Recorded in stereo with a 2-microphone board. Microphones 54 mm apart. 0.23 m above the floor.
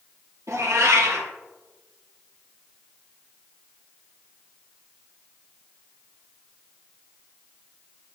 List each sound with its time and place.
0.5 s a cat meowing: 80° right, 3 m